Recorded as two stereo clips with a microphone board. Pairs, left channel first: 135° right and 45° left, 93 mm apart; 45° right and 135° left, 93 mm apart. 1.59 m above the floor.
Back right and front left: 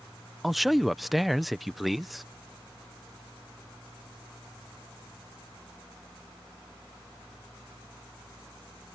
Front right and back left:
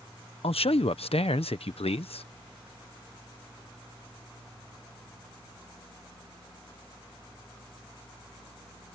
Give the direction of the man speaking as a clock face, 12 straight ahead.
1 o'clock.